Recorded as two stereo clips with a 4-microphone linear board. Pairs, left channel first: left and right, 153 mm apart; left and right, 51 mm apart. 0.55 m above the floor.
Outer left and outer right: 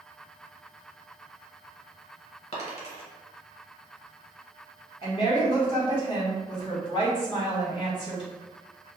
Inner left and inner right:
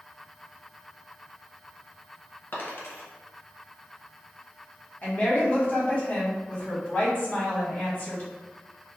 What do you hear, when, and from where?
2.5 s a dropped coin: 50° left (ahead or behind), 1.0 m
5.0 s a woman speaking: 35° left (ahead or behind), 1.3 m